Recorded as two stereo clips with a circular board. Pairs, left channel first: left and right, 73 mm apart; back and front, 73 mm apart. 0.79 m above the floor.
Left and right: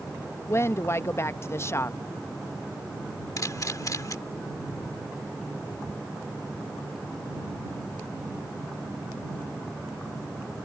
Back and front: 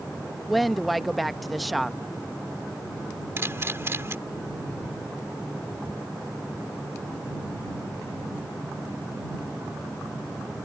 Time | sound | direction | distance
0.5 | a woman speaking | 90° left | ?
3.4 | a camera shutter | 55° left | ?